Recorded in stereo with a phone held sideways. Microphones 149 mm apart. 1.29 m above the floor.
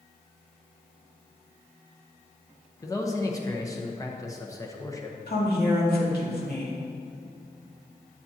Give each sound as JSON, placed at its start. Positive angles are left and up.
{"t": 2.8, "sound": "a man speaking", "side_deg": 20, "distance_m": 1.0}
{"t": 5.3, "sound": "a woman speaking", "side_deg": 80, "distance_m": 2.0}